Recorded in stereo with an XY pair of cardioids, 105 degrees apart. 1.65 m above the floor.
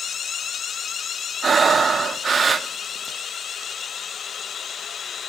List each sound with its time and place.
1.4 s breathing: 30° right, 0.5 m